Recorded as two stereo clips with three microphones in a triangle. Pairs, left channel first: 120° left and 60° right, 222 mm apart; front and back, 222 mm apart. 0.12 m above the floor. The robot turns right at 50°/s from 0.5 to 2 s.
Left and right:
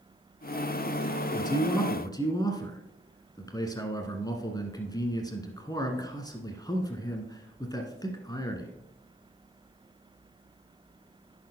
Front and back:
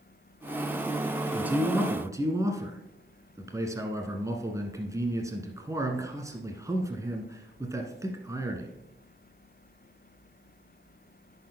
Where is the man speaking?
110° left, 1.1 m; by 8.7 s 140° left, 1.1 m.